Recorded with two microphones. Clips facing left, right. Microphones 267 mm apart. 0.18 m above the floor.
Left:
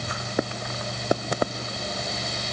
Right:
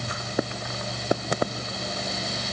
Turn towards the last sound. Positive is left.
No sound to turn to.